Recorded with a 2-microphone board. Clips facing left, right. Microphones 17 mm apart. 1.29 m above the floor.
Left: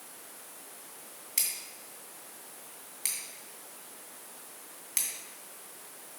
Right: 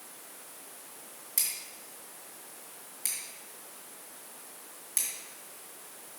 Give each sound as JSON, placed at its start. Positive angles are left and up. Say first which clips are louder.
{"t": 1.4, "sound": "scissors", "louder": "left 1 dB", "side_deg": 30, "distance_m": 2.5}